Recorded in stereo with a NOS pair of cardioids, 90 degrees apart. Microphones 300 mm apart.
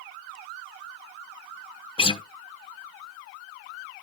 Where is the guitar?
20° left, 0.7 m.